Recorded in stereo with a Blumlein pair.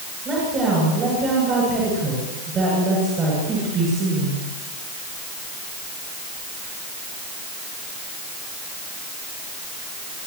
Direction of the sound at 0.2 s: 25° right.